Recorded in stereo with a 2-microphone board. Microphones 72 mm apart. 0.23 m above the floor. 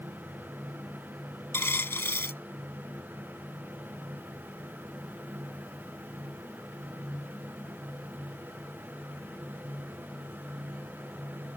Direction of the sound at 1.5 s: 35° left (ahead or behind).